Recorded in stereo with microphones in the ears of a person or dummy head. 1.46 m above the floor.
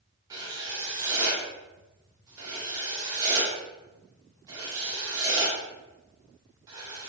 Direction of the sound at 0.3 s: 20° right (ahead or behind).